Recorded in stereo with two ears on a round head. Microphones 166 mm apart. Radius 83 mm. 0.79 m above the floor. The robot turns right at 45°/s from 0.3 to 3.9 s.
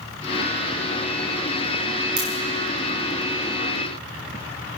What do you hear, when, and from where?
2.2 s a crack: 55° right (ahead or behind), 6.5 m; by 2.3 s 45° right (ahead or behind), 6.5 m